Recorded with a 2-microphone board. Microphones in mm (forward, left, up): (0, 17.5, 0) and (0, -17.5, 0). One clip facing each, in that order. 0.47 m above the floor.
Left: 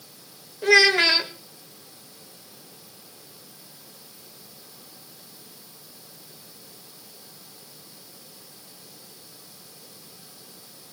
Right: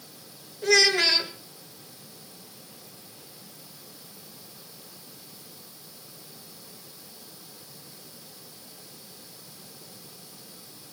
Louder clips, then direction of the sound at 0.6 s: Left 4 dB; 25° left (ahead or behind).